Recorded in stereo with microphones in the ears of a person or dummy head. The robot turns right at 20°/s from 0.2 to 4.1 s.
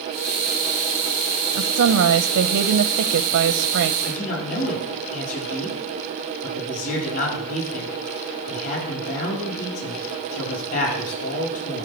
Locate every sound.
1.6 s a woman speaking: 125° right, 0.7 m; by 3.9 s 75° right, 0.7 m
4.0 s a man speaking: 45° left (ahead or behind), 9 m; by 11.8 s 50° left (ahead or behind), 9 m